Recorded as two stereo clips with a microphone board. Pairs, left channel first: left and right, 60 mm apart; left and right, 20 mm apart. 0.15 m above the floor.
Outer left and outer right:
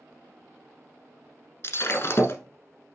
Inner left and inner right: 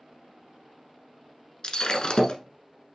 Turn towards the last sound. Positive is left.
turn(degrees=45)  # may be behind; listen again after turning